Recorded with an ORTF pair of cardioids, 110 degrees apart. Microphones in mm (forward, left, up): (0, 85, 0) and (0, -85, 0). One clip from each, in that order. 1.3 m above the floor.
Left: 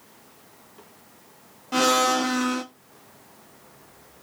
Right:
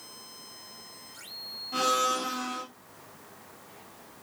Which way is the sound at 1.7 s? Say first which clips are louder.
Left 6 dB; 50° left.